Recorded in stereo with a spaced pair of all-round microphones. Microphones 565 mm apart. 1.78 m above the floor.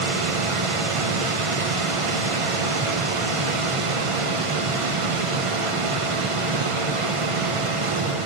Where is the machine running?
65° right (ahead or behind), 0.9 m.